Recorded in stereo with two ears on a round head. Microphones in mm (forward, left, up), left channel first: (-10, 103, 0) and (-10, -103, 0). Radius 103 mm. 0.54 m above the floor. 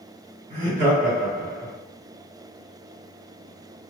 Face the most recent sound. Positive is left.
turn(degrees=-45)  # may be behind; listen again after turning